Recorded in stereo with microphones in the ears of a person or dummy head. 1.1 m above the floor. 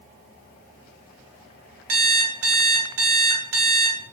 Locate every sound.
1.9 s an alarm clock: 50° right (ahead or behind), 0.7 m